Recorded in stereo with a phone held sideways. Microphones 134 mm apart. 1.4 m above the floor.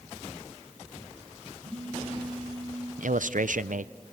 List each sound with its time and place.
1.6 s a phone buzzing: 45° right (ahead or behind), 4.5 m
3.0 s a man speaking: 80° right, 0.6 m